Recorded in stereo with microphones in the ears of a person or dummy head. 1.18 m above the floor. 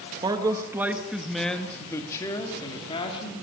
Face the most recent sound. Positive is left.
turn(degrees=25)  # may be behind; listen again after turning